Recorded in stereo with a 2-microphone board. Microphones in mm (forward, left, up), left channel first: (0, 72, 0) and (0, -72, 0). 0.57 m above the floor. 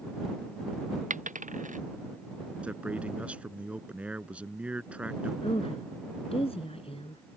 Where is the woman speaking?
40° left (ahead or behind).